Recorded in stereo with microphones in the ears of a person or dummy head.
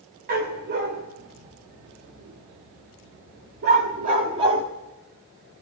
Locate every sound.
0.3 s a dog barking: 55° right (ahead or behind), 2.5 m; by 4.6 s 20° right (ahead or behind), 1.5 m